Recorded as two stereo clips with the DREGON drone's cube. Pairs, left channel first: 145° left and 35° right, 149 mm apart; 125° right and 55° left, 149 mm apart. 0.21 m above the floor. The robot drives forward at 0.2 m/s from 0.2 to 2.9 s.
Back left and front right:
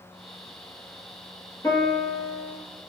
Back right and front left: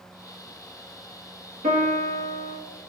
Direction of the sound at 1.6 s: 80° left.